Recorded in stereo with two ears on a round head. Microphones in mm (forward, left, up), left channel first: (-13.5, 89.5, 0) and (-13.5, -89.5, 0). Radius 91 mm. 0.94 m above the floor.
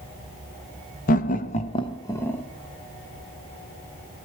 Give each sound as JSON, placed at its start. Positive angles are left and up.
{"t": 1.1, "sound": "laughter", "side_deg": 45, "distance_m": 0.8}